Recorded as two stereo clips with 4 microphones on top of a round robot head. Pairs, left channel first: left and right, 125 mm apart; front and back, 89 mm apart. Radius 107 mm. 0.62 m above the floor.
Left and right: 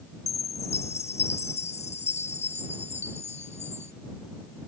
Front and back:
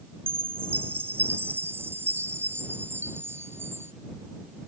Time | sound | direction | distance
0.3 | a chime | 115° left | ?